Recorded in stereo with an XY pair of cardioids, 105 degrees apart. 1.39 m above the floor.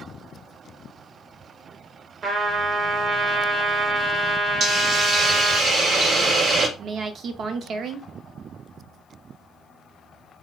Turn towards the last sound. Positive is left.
turn(degrees=-60)